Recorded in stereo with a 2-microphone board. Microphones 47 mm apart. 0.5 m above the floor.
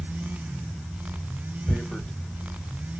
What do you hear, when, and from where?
1.7 s tearing paper: 20° left (ahead or behind), 0.6 m